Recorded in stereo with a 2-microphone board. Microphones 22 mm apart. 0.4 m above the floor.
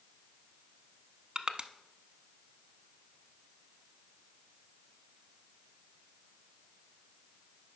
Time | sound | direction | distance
1.4 | crushing | 50° right (ahead or behind) | 0.6 m